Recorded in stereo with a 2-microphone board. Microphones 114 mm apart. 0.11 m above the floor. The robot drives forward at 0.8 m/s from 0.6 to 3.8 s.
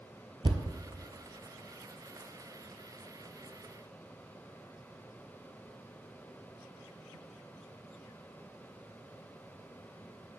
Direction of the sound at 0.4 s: 45° right (ahead or behind).